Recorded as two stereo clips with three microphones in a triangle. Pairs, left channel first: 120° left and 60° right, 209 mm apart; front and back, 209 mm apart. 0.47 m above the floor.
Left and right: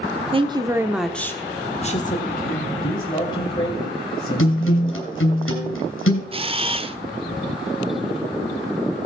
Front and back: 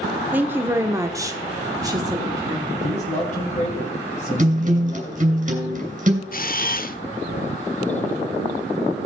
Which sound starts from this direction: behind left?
A guitar, at 4.4 s.